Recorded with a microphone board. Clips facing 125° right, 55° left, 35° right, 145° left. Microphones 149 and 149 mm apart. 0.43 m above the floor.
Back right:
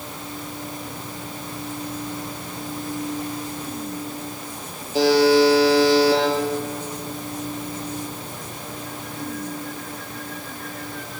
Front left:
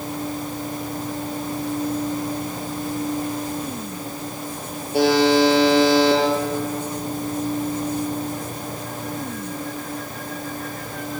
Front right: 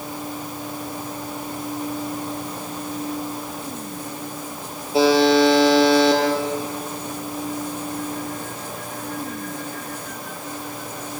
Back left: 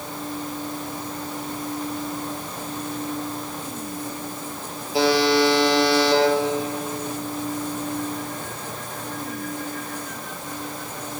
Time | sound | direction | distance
4.9 | a buzzer | 30° left | 8 m